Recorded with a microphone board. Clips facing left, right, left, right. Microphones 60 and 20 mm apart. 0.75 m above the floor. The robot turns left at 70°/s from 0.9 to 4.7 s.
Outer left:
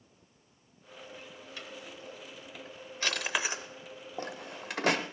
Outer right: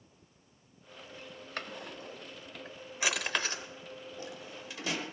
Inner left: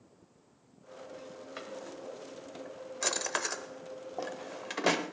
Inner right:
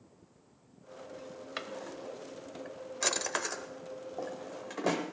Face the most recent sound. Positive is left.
turn(degrees=60)  # may be behind; listen again after turning